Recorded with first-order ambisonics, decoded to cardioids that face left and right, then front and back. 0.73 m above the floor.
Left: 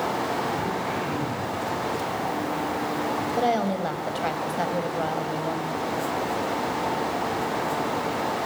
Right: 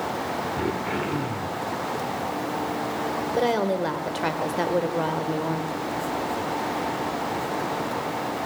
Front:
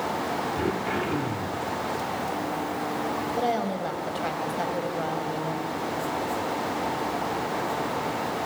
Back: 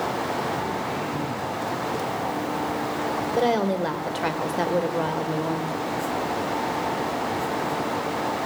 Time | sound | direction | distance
0.6 | throat clearing | 60° right | 3 m
3.4 | a woman speaking | 135° right | 3 m